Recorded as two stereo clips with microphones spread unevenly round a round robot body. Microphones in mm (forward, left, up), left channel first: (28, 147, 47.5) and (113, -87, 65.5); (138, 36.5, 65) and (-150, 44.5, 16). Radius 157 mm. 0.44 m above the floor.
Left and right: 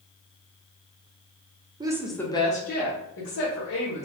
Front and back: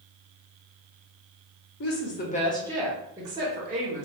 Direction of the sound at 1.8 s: Straight ahead.